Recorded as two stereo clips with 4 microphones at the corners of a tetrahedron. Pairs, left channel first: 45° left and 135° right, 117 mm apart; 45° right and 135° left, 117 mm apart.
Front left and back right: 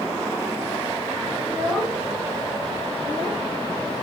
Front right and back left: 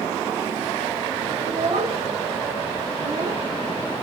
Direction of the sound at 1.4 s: 135° left.